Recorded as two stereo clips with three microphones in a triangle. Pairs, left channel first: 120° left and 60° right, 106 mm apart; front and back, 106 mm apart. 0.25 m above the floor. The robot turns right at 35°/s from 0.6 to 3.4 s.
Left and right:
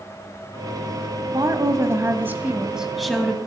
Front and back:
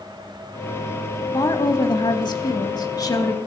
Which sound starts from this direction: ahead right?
A woman speaking, at 1.3 s.